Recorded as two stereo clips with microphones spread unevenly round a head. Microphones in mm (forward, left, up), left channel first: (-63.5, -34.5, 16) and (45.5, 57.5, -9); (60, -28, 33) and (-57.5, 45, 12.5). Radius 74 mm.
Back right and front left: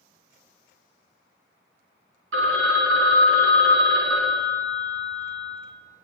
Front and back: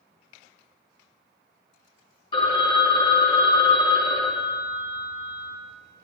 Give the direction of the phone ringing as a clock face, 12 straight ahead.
11 o'clock.